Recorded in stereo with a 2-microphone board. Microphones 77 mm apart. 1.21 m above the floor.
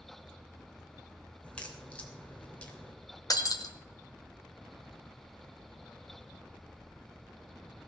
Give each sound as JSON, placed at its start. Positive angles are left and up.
{"t": 1.4, "sound": "a crack", "side_deg": 15, "distance_m": 3.0}
{"t": 3.3, "sound": "breaking glass", "side_deg": 55, "distance_m": 1.8}